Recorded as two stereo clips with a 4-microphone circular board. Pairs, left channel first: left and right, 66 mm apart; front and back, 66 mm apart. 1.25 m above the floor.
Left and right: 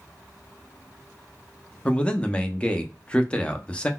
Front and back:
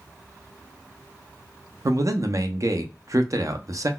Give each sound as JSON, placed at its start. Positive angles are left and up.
{"t": 1.9, "sound": "a man speaking", "azimuth_deg": 160, "distance_m": 0.5}